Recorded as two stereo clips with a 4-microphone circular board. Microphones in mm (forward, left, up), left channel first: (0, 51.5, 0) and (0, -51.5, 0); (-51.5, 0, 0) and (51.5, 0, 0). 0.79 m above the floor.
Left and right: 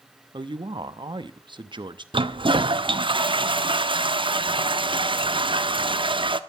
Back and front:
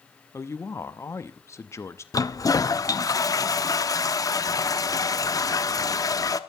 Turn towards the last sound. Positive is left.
turn(degrees=-125)